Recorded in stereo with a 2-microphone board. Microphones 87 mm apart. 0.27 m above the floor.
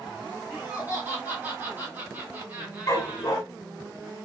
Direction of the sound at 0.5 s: 25° right (ahead or behind).